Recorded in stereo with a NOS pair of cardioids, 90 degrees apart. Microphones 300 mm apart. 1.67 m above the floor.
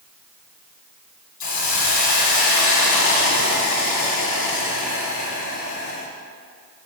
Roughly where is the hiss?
Left.